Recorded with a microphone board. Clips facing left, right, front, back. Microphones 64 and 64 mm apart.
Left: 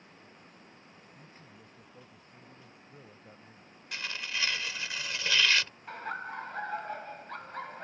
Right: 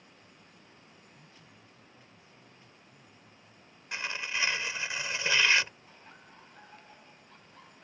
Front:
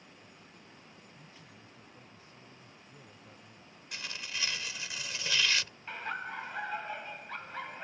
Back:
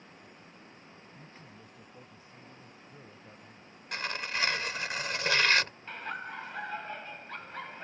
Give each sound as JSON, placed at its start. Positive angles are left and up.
{"t": 1.1, "sound": "a man speaking", "azimuth_deg": 145}
{"t": 3.9, "sound": "tearing paper", "azimuth_deg": -155}
{"t": 5.9, "sound": "laughter", "azimuth_deg": 85}